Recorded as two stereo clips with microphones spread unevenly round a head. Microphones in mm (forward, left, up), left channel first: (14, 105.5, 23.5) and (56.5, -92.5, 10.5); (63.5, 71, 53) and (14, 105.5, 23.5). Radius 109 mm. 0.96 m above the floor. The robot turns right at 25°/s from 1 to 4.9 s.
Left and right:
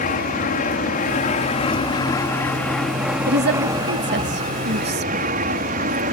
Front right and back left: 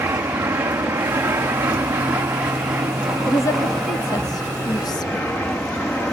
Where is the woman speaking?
105° right; by 5.3 s 65° right.